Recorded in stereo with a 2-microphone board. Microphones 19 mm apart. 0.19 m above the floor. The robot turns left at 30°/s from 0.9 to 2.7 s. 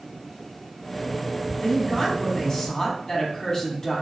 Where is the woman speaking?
135° left, 1.3 m; by 4.0 s 105° left, 1.3 m.